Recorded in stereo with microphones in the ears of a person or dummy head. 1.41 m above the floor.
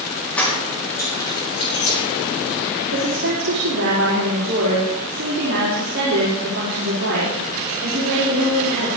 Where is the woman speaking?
70° right (ahead or behind), 4.5 m.